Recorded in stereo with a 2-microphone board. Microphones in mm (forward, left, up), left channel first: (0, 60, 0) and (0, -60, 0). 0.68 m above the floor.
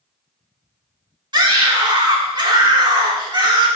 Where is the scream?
35° right (ahead or behind), 1.4 m.